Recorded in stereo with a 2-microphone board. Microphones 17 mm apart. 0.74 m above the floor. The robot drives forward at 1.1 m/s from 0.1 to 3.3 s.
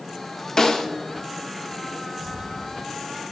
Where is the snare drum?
30° left (ahead or behind), 1.6 m; by 0.9 s 40° left (ahead or behind), 1.3 m.